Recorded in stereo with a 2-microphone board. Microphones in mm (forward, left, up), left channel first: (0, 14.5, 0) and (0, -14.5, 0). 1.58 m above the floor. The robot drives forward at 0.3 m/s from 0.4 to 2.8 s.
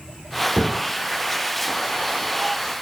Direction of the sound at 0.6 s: 30° right (ahead or behind).